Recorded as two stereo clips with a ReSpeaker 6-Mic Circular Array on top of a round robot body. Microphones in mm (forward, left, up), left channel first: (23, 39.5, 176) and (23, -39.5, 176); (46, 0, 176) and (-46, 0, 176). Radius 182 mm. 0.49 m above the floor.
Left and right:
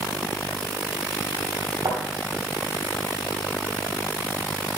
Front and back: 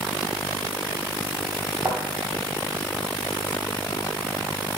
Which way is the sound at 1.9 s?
130° right.